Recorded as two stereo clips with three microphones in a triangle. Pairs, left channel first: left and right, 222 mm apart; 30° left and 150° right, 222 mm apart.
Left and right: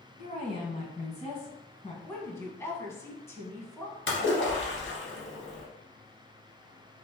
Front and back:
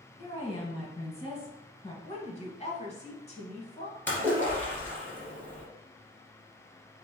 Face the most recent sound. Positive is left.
turn(degrees=110)